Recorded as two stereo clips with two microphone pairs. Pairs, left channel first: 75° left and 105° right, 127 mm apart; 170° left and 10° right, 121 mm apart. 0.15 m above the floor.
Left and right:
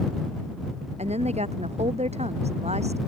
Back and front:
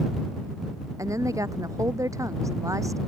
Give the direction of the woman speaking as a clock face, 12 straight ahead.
2 o'clock.